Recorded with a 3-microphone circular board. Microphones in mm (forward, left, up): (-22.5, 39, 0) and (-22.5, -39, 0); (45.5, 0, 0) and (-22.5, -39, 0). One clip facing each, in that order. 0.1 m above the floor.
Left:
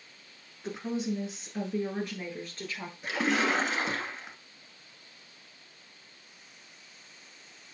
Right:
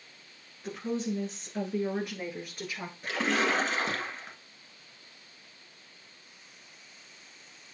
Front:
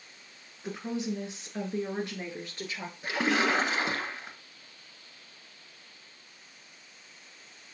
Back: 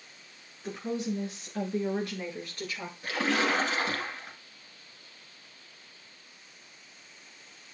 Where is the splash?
20° left, 1.2 m.